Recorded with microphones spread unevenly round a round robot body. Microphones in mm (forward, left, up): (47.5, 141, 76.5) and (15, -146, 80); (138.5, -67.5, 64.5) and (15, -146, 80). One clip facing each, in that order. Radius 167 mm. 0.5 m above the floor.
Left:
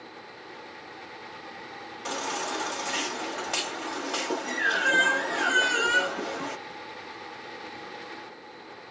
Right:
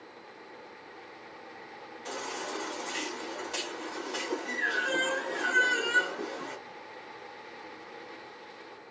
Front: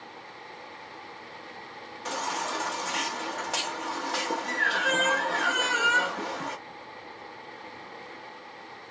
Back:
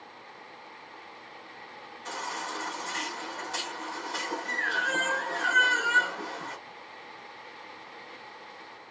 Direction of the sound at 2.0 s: 65° left.